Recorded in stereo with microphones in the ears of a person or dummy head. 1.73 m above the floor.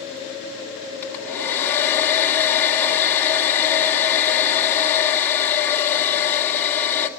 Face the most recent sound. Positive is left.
turn(degrees=15)  # may be behind; listen again after turning